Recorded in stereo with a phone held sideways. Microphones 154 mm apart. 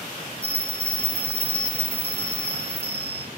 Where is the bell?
10° left (ahead or behind), 2 m.